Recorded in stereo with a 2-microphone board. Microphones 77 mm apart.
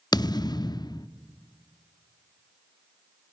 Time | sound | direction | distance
0.1 | a thud | 60° left (ahead or behind) | 0.6 m